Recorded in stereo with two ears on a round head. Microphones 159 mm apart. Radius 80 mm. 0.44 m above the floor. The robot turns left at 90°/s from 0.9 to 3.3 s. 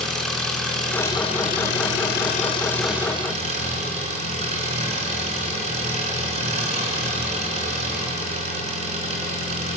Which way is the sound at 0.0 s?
175° left.